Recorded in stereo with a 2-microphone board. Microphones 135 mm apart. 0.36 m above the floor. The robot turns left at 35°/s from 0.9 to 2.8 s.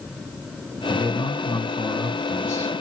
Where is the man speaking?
115° left, 1.4 m; by 2.8 s 45° left, 1.4 m.